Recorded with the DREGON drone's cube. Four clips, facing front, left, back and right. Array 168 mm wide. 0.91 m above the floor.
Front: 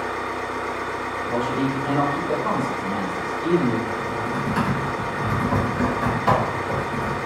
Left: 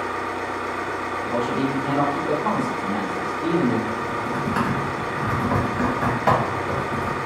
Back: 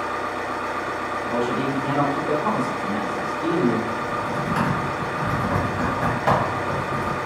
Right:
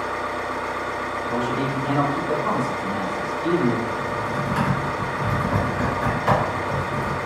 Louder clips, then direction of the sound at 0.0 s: Even, back 1 dB; 125° left.